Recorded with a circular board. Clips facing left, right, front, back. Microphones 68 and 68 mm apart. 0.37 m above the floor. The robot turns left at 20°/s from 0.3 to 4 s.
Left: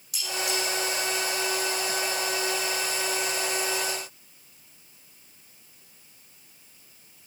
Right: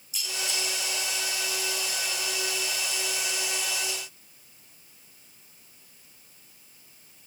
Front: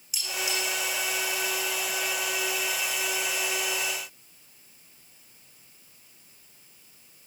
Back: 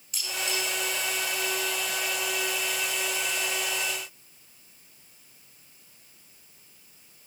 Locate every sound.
0.1 s cutlery clinking: 85° left, 10 m; by 0.6 s 80° left, 10 m